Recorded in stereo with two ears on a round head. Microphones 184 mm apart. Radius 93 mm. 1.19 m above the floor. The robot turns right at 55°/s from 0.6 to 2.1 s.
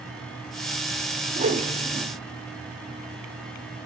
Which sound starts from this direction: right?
A whoosh, at 1.4 s.